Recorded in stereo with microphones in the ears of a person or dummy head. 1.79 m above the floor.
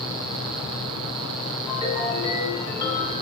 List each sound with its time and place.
1.7 s a ringtone: 25° left (ahead or behind), 2.5 m